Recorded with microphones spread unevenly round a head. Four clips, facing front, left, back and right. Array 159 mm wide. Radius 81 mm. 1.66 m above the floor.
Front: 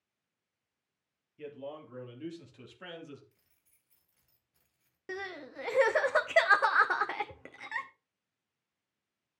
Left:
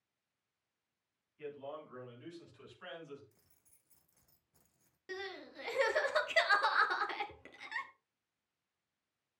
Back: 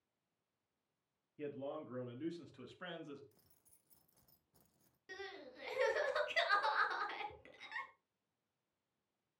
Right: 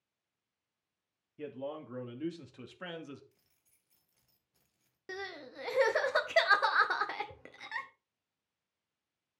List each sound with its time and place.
1.4 s a man speaking: 110° right, 3 m; by 3.2 s 75° right, 2.5 m
3.3 s keys jangling: 165° left, 0.8 m
5.1 s crying: 25° right, 1.6 m